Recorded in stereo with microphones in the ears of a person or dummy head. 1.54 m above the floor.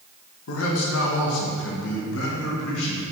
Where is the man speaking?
70° left (ahead or behind), 1.6 m.